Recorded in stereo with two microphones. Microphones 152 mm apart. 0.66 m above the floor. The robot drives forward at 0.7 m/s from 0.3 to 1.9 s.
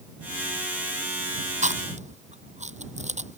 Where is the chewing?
50° right (ahead or behind).